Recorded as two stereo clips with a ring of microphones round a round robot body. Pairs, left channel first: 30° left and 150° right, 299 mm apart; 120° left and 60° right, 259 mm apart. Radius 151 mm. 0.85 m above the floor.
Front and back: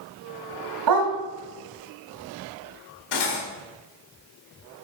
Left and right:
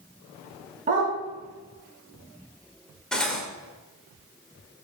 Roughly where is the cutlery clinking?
Ahead left.